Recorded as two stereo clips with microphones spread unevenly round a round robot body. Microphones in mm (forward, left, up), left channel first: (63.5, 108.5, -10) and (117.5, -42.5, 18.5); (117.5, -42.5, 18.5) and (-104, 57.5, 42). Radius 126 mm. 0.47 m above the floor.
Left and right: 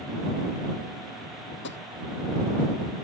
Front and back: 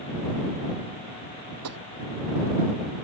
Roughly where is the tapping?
Behind left.